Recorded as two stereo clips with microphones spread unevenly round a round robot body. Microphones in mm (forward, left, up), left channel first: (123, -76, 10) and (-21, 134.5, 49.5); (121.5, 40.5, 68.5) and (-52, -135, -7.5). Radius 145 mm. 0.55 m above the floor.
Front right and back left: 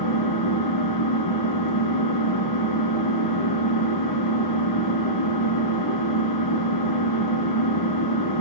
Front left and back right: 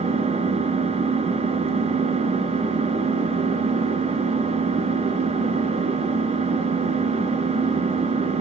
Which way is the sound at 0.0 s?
70° right.